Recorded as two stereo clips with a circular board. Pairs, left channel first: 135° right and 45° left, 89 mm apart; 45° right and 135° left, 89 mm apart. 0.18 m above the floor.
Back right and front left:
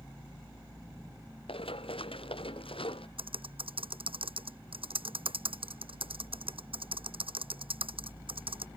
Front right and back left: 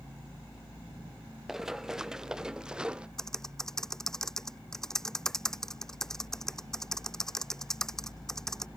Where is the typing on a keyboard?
40° left.